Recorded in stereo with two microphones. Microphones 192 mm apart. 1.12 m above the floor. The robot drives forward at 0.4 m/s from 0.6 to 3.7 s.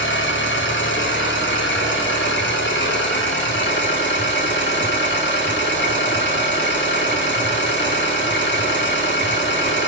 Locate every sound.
0.0 s an engine running: 80° left, 3 m; by 9.9 s 70° left (ahead or behind), 3 m